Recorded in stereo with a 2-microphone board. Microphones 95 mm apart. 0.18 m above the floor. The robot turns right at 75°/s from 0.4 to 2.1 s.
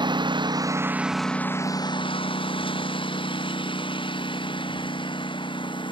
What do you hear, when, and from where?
0.0 s a lawn mower: 50° right (ahead or behind); by 5.9 s 60° left (ahead or behind)